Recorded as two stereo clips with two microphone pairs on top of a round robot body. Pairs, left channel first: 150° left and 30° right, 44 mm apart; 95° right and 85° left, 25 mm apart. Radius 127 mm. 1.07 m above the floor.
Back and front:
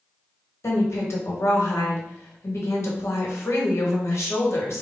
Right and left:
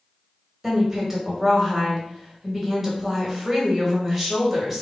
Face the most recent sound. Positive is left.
turn(degrees=165)